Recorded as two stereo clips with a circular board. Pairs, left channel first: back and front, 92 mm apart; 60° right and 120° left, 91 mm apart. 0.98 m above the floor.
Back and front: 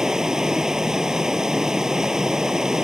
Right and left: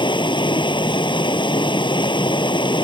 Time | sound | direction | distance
0.0 | running water | 85° right | ?